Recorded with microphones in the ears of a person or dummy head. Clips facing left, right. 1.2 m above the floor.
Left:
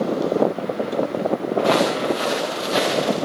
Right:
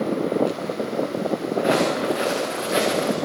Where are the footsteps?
15° right (ahead or behind), 5.5 m; by 3.2 s 40° right (ahead or behind), 4.5 m.